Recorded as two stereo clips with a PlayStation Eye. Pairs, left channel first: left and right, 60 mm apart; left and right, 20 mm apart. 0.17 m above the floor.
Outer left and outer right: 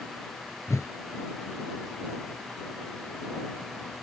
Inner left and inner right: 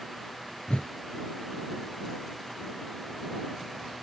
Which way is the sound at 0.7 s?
55° left (ahead or behind).